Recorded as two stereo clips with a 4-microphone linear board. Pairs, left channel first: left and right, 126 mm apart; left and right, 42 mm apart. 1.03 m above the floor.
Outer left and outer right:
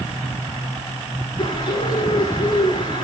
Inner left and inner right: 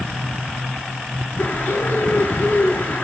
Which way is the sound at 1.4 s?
35° left (ahead or behind).